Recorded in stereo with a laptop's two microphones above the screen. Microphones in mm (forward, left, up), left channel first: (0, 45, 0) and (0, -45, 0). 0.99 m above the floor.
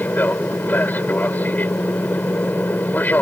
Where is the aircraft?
20° left (ahead or behind).